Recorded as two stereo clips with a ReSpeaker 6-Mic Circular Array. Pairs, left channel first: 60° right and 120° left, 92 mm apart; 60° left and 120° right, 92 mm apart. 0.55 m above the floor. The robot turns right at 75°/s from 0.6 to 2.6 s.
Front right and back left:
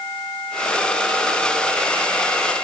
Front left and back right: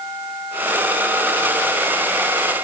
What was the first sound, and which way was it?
Only background noise.